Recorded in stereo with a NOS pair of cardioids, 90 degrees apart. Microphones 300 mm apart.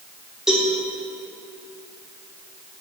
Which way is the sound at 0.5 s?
Straight ahead.